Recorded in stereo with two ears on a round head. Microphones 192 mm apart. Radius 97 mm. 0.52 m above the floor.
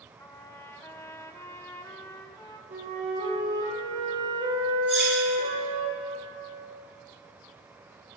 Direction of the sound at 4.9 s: 5° right (ahead or behind).